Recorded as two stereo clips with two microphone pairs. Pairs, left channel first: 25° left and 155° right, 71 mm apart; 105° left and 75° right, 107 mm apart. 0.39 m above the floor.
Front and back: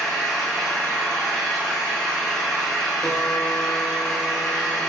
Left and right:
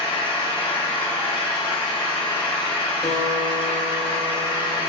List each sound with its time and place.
0.0 s an engine running: 110° left, 1.0 m
3.0 s a guitar: 120° left, 0.7 m